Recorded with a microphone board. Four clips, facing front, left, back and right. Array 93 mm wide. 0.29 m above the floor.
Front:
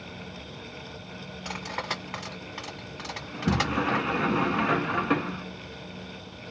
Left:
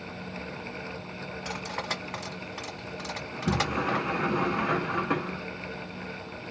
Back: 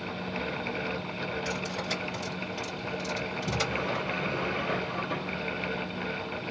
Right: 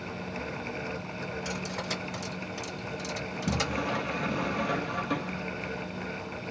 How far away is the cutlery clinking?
About 1.5 m.